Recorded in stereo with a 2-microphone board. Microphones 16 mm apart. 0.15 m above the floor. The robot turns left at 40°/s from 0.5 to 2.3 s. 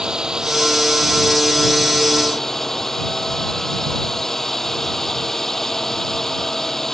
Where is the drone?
130° right; by 7.0 s 160° left.